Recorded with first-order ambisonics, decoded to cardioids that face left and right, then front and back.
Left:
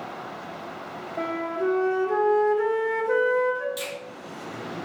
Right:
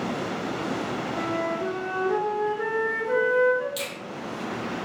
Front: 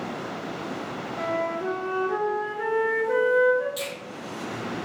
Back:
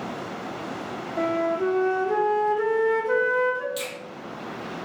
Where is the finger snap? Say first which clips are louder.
Even, even; 105° right, 1.5 m.